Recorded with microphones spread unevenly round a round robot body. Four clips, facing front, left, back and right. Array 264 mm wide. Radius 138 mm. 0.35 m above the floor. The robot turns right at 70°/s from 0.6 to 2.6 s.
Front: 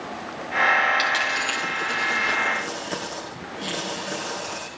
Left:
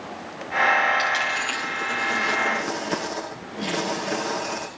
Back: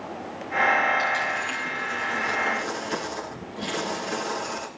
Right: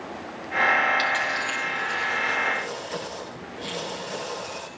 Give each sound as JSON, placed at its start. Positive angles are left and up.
{"t": 1.0, "sound": "a dropped coin", "azimuth_deg": -25, "distance_m": 6.0}